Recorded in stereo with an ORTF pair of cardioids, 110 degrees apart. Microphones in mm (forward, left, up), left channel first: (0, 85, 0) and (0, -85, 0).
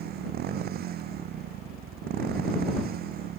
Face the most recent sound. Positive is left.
turn(degrees=-65)